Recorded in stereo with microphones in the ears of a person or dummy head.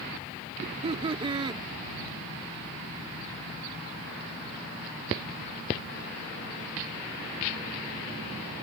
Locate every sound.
0.6 s laughter: 35° right (ahead or behind); by 1.6 s 25° right (ahead or behind)